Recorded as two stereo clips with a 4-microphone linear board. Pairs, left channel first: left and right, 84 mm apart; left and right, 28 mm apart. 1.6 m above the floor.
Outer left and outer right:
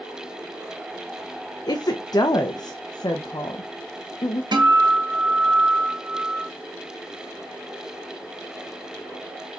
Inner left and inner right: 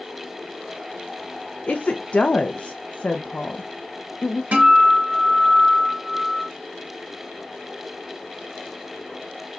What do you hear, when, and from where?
1.7 s a woman speaking: 50° left (ahead or behind), 0.5 m
4.5 s a guitar: 60° right (ahead or behind), 1.3 m